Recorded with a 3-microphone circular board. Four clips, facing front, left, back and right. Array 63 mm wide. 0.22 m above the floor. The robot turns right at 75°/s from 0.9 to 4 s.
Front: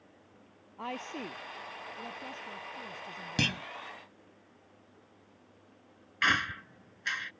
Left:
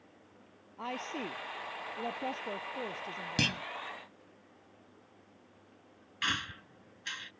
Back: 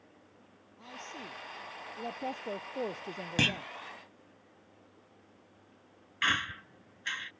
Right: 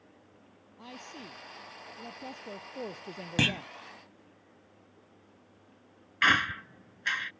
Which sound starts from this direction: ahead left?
A woman speaking, at 0.8 s.